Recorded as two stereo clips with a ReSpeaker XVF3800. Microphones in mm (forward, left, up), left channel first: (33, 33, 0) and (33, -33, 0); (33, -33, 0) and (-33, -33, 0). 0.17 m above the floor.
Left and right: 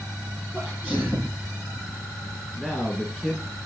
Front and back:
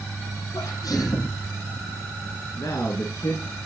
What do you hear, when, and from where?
0.5 s a sneeze: 15° right, 7 m
2.6 s a man speaking: 5° left, 2 m